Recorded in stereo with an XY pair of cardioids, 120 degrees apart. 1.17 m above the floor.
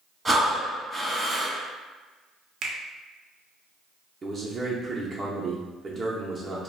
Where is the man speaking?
30° right, 0.6 m.